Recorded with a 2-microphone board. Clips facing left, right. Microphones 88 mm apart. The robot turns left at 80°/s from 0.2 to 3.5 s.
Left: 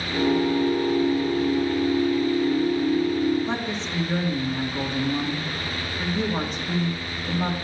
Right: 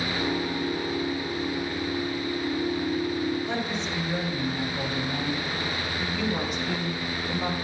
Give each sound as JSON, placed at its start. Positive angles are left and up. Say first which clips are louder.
{"t": 3.5, "sound": "a woman speaking", "louder": "left 1 dB", "side_deg": 30, "distance_m": 2.0}